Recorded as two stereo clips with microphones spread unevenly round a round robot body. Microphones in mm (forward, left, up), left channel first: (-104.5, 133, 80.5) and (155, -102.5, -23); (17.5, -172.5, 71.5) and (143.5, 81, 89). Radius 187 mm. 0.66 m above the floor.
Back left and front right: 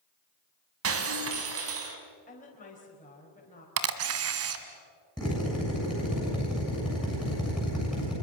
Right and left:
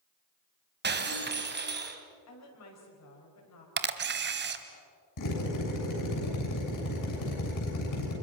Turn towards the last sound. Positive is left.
turn(degrees=-130)